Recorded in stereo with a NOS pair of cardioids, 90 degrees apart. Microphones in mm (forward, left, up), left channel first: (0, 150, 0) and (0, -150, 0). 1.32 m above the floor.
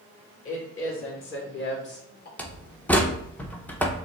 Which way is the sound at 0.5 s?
45° left.